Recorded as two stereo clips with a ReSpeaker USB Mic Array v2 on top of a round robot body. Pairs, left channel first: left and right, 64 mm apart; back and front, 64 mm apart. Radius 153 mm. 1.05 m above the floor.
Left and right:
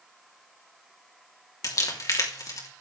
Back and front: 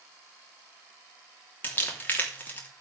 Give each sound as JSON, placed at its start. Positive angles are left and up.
{"t": 1.6, "sound": "crumpling", "azimuth_deg": 120, "distance_m": 3.0}